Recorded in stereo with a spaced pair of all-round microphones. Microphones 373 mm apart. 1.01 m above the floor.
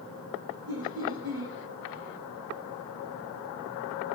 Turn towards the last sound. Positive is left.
turn(degrees=-75)  # may be behind; listen again after turning